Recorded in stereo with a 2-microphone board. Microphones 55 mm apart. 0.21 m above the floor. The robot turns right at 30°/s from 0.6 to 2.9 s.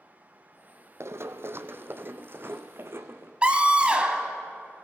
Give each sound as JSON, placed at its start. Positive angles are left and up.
{"t": 1.0, "sound": "running footsteps", "side_deg": -60, "distance_m": 0.6}
{"t": 3.4, "sound": "a scream", "side_deg": -20, "distance_m": 1.3}